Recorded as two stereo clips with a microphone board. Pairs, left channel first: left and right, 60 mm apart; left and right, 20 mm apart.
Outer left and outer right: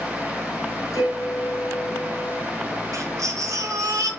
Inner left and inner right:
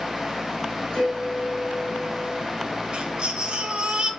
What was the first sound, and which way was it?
A piano, 65° left (ahead or behind).